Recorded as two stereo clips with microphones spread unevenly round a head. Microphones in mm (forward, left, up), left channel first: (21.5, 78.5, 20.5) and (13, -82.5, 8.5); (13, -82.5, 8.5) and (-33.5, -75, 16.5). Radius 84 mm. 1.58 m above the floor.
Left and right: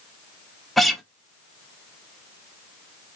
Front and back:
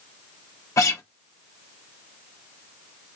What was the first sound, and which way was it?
A guitar, straight ahead.